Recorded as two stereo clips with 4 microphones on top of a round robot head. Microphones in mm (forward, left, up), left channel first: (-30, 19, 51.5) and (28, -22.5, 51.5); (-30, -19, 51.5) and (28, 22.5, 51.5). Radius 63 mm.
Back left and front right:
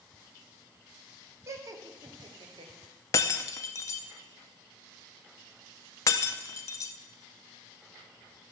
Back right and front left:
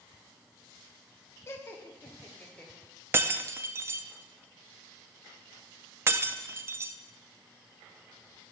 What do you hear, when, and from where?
1.5 s laughter: 85° right, 2 m; by 2.7 s 65° right, 3.5 m
3.1 s breaking glass: 95° left, 0.6 m